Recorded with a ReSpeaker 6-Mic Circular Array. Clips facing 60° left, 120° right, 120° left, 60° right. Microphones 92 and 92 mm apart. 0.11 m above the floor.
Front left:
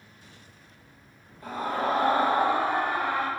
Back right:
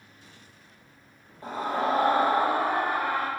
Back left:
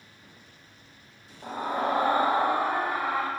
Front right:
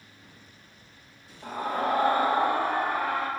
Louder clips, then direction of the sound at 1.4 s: Back right 1 dB, even; 175° right.